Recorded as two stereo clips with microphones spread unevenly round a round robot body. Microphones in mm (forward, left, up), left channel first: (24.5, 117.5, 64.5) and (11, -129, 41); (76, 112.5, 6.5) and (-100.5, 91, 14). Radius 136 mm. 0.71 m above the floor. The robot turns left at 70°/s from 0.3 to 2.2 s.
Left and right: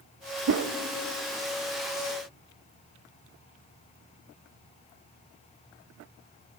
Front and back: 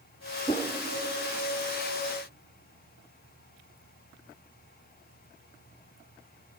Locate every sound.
0.5 s a whoosh: 60° right, 0.6 m; by 0.7 s 75° right, 0.6 m